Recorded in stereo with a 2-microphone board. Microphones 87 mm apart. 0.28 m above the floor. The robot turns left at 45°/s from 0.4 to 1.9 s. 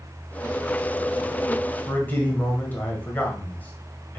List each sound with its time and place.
1.9 s a man speaking: 25° left (ahead or behind), 1.1 m